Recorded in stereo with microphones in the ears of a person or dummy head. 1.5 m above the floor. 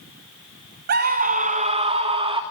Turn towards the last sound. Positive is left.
turn(degrees=-25)  # may be behind; listen again after turning